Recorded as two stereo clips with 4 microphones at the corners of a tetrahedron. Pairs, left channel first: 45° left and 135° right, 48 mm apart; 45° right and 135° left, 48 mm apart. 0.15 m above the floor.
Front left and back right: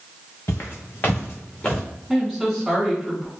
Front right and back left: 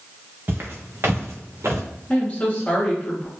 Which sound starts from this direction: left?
Footsteps, at 0.5 s.